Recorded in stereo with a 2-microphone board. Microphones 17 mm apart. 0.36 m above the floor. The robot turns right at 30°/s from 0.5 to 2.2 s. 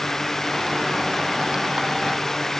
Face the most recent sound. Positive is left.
No sound to turn to.